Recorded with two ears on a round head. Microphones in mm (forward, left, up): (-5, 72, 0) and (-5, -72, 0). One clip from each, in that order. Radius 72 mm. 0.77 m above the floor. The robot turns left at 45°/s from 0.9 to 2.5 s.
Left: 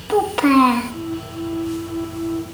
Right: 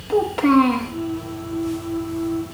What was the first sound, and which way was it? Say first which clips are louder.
A child speaking: left 1 dB; 30° left (ahead or behind).